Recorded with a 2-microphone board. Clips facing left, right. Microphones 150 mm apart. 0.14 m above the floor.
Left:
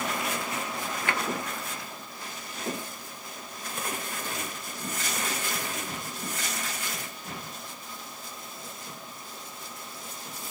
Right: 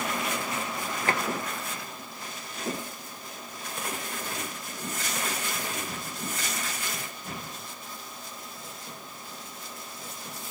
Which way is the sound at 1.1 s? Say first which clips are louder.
Right 3 dB; 35° right (ahead or behind).